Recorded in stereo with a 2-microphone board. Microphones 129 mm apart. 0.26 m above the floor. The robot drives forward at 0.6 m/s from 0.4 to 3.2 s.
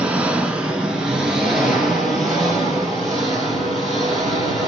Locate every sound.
0.0 s an engine running: 10° right (ahead or behind), 0.8 m; by 4.7 s 5° right (ahead or behind), 2.5 m